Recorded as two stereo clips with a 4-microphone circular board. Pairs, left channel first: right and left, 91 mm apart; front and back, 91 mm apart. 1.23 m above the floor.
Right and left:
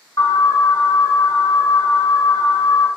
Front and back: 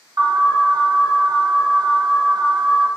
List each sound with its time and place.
0.2 s an alarm: 140° right, 1.0 m